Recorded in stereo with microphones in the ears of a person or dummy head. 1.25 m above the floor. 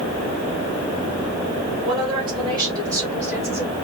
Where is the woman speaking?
30° right (ahead or behind), 2 m; by 3.7 s 10° right (ahead or behind), 1.2 m.